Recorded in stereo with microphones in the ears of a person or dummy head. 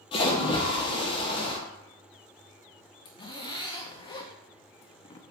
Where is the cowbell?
I don't hear a cowbell.